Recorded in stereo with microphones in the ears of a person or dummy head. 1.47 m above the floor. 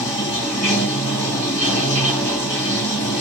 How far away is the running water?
About 1.7 m.